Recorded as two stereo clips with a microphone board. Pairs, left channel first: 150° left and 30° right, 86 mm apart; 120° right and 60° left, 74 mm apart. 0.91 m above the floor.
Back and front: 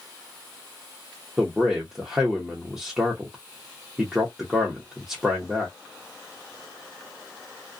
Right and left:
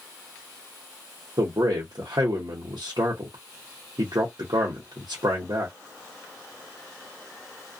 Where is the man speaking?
50° left, 0.8 m.